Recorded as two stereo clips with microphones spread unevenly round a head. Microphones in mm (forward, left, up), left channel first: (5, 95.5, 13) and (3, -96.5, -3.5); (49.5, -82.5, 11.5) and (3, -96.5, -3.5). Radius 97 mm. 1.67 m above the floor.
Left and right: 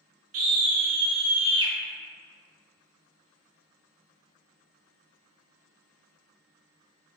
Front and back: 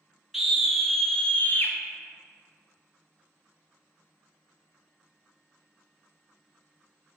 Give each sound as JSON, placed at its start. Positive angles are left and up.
{"t": 0.3, "sound": "a scream", "azimuth_deg": -75, "distance_m": 1.3}